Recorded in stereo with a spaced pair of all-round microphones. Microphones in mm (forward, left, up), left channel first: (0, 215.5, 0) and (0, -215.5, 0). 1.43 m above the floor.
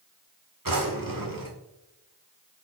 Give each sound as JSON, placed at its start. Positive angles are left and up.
{"t": 0.7, "sound": "a drawer", "side_deg": -50, "distance_m": 1.5}